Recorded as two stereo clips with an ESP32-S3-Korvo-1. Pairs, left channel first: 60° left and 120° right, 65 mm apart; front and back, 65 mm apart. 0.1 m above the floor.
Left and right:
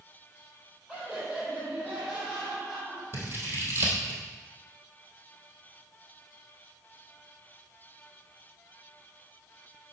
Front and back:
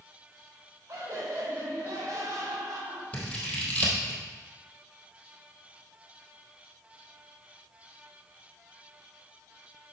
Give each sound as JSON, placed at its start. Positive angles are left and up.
{"t": 0.9, "sound": "laughter", "azimuth_deg": 160, "distance_m": 3.0}
{"t": 3.1, "sound": "scissors", "azimuth_deg": -70, "distance_m": 2.0}